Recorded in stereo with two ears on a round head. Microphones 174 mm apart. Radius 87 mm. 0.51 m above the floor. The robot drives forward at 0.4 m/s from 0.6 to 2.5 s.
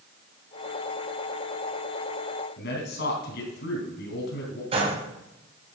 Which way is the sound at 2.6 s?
60° left (ahead or behind).